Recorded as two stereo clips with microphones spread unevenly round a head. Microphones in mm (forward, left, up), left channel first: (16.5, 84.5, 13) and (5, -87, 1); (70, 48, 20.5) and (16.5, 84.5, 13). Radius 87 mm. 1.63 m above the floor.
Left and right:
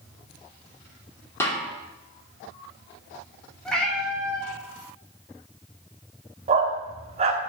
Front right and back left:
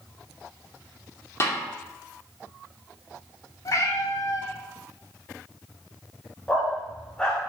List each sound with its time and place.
1.4 s a snare drum: 10° left, 2.5 m
3.6 s a cat meowing: straight ahead, 2.5 m
6.5 s a dog barking: 95° right, 1.3 m